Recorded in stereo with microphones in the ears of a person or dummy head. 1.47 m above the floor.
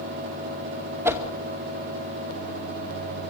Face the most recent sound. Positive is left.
turn(degrees=-20)  # may be behind; listen again after turning